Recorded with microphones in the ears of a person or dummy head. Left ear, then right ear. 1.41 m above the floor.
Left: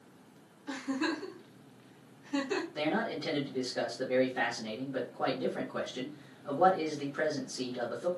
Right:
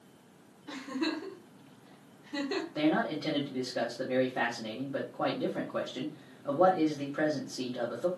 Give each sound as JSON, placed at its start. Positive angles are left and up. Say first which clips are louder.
{"t": 0.7, "sound": "a giggle", "louder": "left 1 dB", "side_deg": 50, "distance_m": 1.3}
{"t": 2.8, "sound": "a man speaking", "louder": "right 5 dB", "side_deg": -20, "distance_m": 0.8}